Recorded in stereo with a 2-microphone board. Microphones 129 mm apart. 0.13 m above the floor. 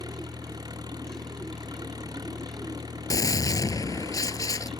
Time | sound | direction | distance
0.0 | an engine running | 30° right (ahead or behind) | ?
3.1 | a gunshot | 30° left (ahead or behind) | ?